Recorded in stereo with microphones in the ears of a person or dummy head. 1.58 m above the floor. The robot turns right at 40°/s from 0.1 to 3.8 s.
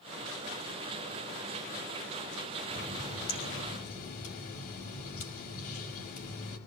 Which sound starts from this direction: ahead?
A running tap, at 2.7 s.